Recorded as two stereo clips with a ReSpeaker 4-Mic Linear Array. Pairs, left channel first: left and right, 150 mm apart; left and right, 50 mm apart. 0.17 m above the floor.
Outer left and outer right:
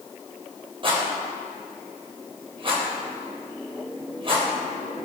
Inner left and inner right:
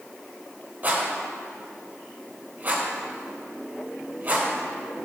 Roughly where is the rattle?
Right.